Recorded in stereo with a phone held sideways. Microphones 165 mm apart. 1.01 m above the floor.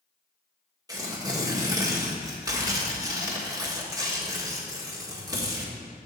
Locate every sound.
0.9 s tearing paper: 25° right (ahead or behind), 1.5 m